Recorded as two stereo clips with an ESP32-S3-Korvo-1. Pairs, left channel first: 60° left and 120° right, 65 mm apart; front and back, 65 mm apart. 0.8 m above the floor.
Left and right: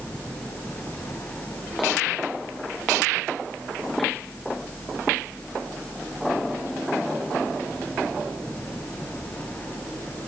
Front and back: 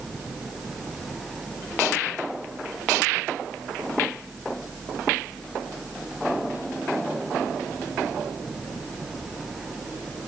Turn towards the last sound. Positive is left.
No sound to turn to.